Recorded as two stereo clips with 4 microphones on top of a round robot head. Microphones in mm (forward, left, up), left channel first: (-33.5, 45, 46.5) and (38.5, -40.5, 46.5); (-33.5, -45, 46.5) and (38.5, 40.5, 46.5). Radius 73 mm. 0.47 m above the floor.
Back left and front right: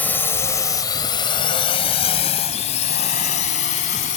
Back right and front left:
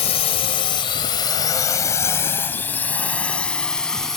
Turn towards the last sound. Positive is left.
turn(degrees=145)